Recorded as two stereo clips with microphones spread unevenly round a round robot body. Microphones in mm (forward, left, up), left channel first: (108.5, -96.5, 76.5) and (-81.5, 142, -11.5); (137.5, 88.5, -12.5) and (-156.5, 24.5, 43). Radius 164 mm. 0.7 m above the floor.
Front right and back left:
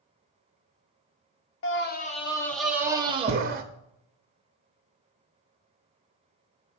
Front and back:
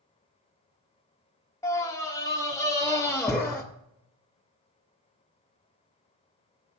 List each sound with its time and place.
1.6 s a scream: 25° right, 0.7 m; by 3.6 s 85° left, 1.1 m